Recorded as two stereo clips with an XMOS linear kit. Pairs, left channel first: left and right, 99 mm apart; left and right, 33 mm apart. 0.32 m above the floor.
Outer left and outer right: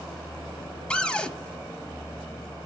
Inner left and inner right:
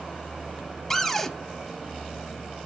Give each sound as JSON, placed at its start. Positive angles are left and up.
{"t": 0.9, "sound": "a cupboard door", "side_deg": 10, "distance_m": 0.7}